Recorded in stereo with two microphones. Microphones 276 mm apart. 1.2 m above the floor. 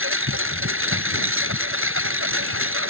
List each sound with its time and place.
0.0 s a lawn mower: 50° right (ahead or behind)